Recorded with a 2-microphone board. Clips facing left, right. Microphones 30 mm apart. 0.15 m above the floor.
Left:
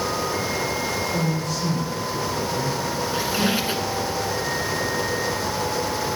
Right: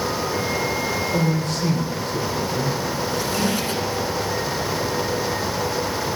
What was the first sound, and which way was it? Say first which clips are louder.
A man speaking: right 3 dB; 60° right (ahead or behind).